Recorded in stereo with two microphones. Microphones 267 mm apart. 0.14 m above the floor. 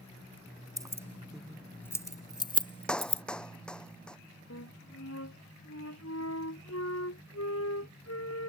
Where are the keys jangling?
15° right (ahead or behind); by 3.2 s 25° left (ahead or behind).